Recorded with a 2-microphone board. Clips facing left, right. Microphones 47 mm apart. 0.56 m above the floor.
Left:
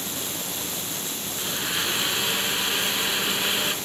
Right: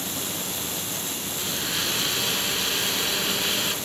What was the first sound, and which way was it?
A blender, 15° left (ahead or behind).